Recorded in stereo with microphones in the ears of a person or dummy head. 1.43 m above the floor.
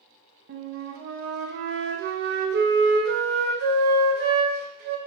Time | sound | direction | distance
0.5 | a flute | 55° right (ahead or behind) | 0.6 m